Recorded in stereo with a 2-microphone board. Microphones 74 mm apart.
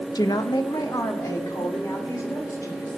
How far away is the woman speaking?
About 0.7 m.